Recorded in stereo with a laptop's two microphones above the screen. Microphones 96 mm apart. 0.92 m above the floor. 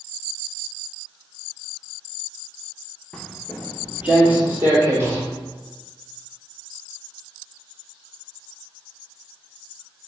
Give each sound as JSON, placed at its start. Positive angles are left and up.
{"t": 3.1, "sound": "footsteps", "side_deg": 5, "distance_m": 0.9}